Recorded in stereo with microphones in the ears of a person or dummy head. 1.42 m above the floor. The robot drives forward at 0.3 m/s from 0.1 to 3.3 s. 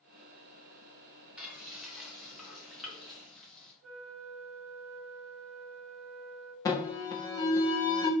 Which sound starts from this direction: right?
A flute, at 3.8 s.